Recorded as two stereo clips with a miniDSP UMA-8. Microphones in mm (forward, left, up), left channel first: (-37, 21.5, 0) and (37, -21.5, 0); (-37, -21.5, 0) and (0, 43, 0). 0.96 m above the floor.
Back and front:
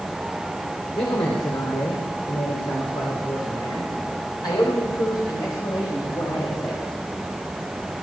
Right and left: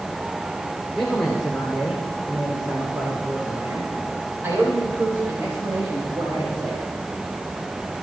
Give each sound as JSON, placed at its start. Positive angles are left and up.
{"t": 0.9, "sound": "a man speaking", "azimuth_deg": 155, "distance_m": 3.0}